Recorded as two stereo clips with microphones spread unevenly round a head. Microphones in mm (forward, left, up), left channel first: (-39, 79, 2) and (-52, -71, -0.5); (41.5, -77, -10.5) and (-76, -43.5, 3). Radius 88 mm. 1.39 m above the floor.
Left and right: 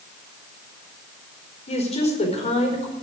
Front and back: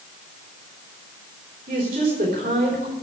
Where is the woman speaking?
130° left, 4.5 m.